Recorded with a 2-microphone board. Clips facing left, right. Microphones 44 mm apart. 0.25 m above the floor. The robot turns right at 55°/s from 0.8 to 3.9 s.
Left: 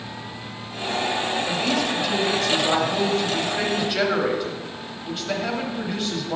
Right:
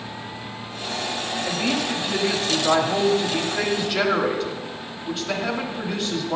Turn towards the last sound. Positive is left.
turn(degrees=0)  # may be behind; listen again after turning